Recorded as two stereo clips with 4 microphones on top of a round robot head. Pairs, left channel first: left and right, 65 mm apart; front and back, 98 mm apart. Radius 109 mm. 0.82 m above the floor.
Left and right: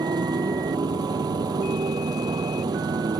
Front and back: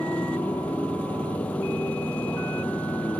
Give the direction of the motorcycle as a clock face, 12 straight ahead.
3 o'clock.